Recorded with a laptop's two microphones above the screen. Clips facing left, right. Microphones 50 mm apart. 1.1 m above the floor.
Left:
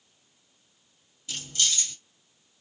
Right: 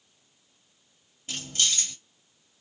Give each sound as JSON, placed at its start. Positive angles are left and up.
{"t": 1.3, "sound": "keys jangling", "side_deg": -40, "distance_m": 1.4}